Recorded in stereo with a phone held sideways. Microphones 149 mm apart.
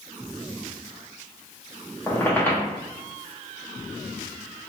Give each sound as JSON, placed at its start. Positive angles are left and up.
{"t": 2.1, "sound": "a squeak", "side_deg": 15, "distance_m": 0.7}